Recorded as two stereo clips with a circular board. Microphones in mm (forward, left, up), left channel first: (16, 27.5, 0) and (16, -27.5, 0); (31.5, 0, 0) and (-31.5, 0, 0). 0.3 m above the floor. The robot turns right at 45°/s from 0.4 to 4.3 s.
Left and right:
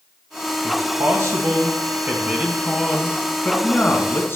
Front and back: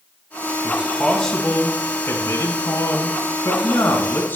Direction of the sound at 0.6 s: 110° right.